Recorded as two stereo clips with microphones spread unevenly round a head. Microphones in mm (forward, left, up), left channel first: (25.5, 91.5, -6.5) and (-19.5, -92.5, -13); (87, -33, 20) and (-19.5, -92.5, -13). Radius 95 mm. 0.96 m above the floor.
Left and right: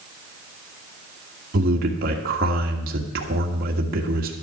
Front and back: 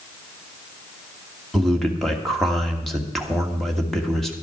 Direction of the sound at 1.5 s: 65° right.